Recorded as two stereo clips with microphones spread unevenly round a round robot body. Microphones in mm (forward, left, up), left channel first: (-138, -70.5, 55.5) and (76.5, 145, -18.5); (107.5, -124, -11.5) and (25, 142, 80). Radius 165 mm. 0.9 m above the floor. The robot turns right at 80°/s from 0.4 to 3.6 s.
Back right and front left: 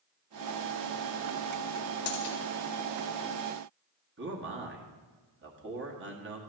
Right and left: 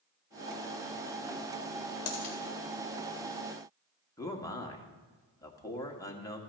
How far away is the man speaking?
About 1.8 m.